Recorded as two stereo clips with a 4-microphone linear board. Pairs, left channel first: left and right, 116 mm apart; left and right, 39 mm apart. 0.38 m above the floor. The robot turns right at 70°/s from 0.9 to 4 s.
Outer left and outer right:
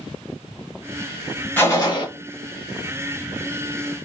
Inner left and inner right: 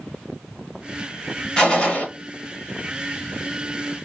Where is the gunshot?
20° left, 0.9 m; by 2.1 s 55° left, 0.9 m.